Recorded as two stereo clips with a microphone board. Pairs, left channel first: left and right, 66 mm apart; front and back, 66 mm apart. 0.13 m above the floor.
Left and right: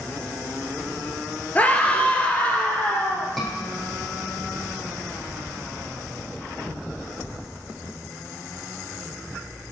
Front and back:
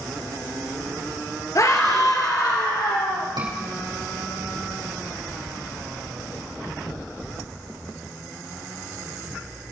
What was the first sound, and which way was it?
A scream, 25° left.